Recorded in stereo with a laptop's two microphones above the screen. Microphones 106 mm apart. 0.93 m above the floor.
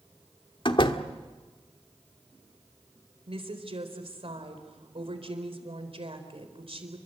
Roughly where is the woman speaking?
Right.